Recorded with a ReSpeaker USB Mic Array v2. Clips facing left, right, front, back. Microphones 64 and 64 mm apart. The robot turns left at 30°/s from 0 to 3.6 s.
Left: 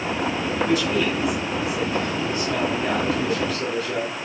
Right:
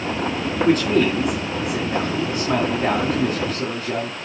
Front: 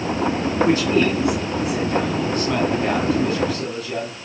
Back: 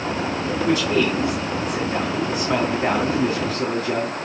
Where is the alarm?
I don't hear an alarm.